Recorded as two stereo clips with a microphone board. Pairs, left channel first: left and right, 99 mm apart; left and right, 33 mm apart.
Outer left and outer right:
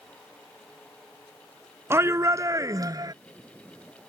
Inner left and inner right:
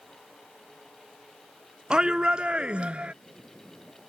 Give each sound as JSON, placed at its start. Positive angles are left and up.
{"t": 1.9, "sound": "a shout", "side_deg": -25}